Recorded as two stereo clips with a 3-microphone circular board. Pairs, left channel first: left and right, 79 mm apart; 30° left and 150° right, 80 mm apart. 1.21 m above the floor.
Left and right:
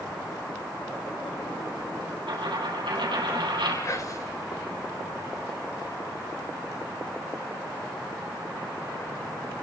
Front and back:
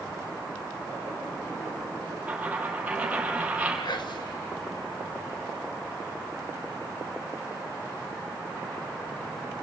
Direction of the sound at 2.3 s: 75° right.